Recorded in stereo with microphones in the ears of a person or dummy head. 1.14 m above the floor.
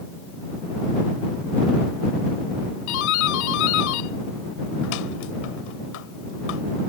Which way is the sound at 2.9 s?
70° left (ahead or behind).